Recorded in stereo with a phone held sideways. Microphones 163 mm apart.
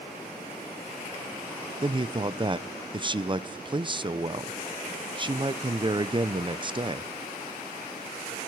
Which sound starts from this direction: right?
A man speaking, at 1.8 s.